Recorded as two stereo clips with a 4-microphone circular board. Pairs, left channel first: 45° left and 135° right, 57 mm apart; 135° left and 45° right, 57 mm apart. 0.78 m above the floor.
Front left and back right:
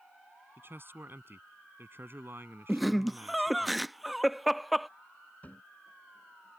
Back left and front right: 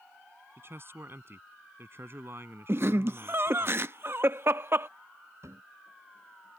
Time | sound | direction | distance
0.6 | a man speaking | 90° right | ?
2.7 | laughter | 45° right | ?
5.4 | a cupboard door | 15° right | ?